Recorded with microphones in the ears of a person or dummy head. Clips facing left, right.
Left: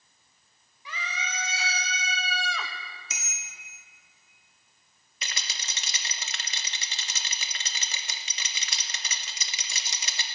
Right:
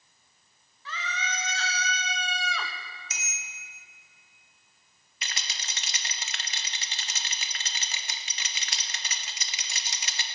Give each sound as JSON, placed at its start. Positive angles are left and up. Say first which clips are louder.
{"t": 0.8, "sound": "a scream", "louder": "right 2 dB", "side_deg": 10, "distance_m": 1.8}
{"t": 3.1, "sound": "a bicycle bell", "louder": "right 1 dB", "side_deg": 70, "distance_m": 2.5}
{"t": 5.2, "sound": "a rattle", "louder": "even", "side_deg": 85, "distance_m": 1.1}